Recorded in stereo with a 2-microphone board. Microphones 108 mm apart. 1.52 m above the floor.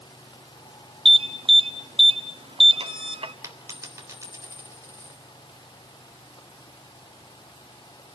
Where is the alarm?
55° right (ahead or behind), 1.2 m.